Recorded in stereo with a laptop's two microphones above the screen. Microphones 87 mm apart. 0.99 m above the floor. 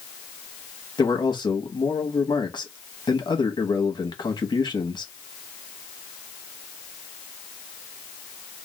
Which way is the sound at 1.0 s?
55° left (ahead or behind).